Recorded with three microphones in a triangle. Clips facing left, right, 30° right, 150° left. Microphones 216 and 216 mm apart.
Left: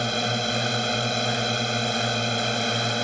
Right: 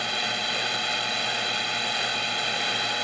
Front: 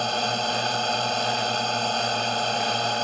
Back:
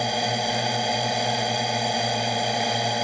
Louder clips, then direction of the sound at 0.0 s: Left 7 dB, back 1 dB; 75° left.